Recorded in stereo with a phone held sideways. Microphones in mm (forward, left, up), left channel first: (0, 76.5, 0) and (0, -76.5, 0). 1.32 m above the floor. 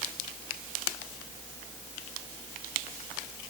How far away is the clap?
I don't hear a clap.